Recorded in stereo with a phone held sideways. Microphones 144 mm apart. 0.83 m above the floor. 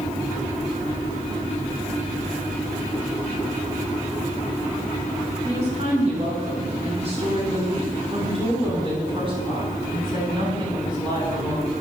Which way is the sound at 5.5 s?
50° right (ahead or behind).